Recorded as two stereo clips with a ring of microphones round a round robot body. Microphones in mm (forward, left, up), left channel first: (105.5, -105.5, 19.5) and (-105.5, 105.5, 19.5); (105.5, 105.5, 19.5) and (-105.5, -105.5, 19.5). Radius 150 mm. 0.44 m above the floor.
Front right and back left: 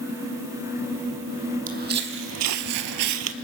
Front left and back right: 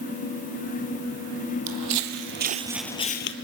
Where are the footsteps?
160° right, 1.3 m; by 3.3 s 95° left, 0.8 m.